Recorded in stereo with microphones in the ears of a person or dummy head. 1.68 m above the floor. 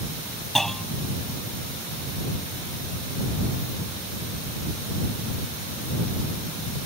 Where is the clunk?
Centre (ahead or behind).